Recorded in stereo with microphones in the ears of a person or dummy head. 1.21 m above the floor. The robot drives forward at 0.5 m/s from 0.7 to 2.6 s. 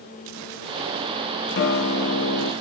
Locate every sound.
1.6 s a guitar: 55° left (ahead or behind), 1.2 m; by 2.5 s 75° left (ahead or behind), 1.0 m